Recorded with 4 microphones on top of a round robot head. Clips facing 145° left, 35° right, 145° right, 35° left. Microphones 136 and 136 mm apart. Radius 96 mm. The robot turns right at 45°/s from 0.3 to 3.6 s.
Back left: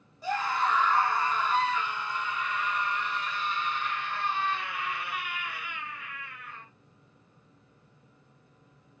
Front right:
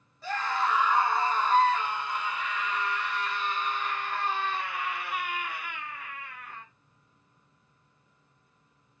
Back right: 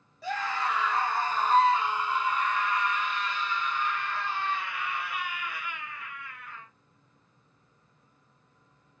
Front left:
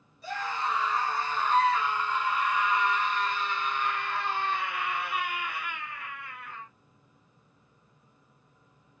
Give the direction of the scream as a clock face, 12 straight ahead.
5 o'clock.